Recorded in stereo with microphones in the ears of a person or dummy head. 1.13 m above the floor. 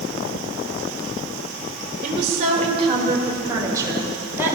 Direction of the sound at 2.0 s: 45° right (ahead or behind).